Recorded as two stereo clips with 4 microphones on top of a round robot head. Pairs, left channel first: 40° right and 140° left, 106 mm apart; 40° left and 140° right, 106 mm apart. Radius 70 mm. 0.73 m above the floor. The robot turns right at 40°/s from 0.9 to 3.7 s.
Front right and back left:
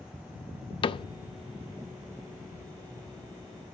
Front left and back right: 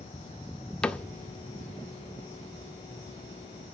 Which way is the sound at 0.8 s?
40° right.